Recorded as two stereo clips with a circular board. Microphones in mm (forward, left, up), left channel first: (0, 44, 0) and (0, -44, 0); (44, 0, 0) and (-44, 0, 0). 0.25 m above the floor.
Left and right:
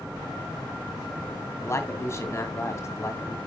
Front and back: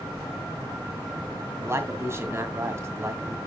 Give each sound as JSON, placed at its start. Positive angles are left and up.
{"t": 1.6, "sound": "a man speaking", "azimuth_deg": 135, "distance_m": 2.0}